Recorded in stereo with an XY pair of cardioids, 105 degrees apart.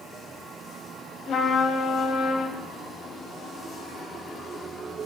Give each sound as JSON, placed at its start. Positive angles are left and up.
{"t": 1.3, "sound": "a trumpet", "azimuth_deg": 60, "distance_m": 2.5}